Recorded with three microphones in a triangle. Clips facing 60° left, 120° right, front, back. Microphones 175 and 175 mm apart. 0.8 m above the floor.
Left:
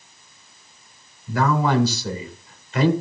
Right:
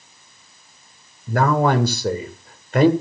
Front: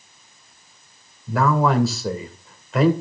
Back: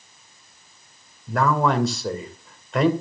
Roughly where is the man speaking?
Right.